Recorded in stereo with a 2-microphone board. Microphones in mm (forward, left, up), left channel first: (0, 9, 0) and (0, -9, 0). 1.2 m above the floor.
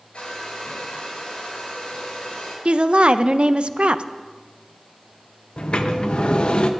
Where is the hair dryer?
70° left (ahead or behind), 5 m.